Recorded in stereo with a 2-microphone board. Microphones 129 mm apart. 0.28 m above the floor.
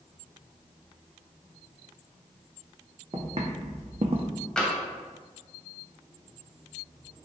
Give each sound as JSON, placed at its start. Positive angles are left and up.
{"t": 3.1, "sound": "footsteps", "side_deg": -45, "distance_m": 0.8}
{"t": 4.6, "sound": "tapping", "side_deg": 5, "distance_m": 0.7}